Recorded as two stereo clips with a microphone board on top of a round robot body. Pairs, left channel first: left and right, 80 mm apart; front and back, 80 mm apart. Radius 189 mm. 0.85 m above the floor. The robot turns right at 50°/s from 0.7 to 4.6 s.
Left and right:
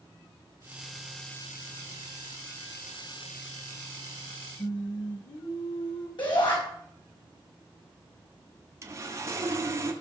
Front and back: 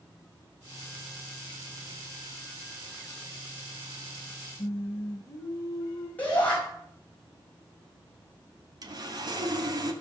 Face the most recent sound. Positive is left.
turn(degrees=-145)